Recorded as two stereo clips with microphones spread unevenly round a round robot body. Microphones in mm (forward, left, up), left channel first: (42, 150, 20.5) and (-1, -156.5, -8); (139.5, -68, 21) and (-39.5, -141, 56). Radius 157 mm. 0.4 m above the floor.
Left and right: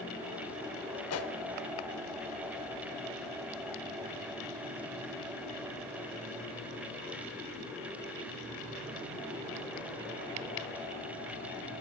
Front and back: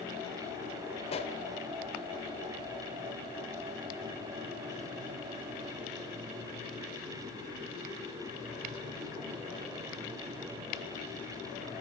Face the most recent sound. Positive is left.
turn(degrees=55)